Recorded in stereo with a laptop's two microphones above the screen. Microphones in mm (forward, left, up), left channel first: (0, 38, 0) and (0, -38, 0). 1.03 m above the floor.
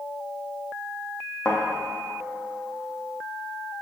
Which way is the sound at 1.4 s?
15° left (ahead or behind).